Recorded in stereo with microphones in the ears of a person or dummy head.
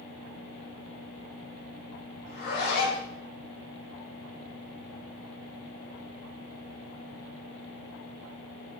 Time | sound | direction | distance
2.3 | a zipper | 65° left (ahead or behind) | 2.5 m